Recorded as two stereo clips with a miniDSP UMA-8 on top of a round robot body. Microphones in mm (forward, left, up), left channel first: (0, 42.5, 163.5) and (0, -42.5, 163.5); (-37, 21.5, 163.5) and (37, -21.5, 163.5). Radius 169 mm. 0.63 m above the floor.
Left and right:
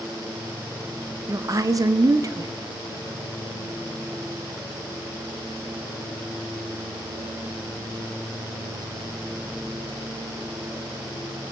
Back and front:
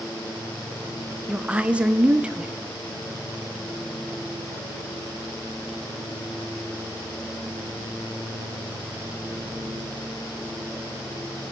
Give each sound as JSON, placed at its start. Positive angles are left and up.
{"t": 1.3, "sound": "a woman speaking", "azimuth_deg": -100, "distance_m": 0.7}